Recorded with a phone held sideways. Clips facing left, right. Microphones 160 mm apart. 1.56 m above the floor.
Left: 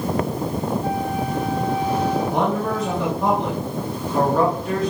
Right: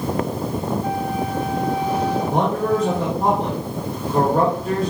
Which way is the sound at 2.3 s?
50° right (ahead or behind).